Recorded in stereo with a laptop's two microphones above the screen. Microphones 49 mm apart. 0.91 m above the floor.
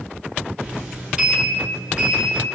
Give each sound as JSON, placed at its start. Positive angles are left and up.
{"t": 0.6, "sound": "a sliding door", "side_deg": -15, "distance_m": 1.0}